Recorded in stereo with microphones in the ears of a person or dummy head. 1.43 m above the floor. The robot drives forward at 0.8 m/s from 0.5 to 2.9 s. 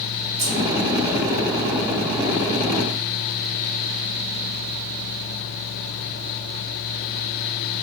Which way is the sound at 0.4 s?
15° right (ahead or behind).